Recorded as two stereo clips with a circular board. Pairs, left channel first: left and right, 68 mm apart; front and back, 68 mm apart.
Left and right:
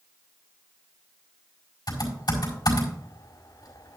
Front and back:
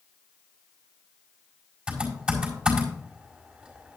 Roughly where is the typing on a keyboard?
Left.